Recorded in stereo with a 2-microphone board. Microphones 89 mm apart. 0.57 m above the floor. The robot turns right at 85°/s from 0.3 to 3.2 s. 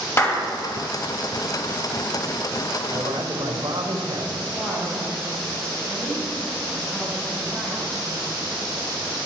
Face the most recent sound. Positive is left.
turn(degrees=5)  # may be behind; listen again after turning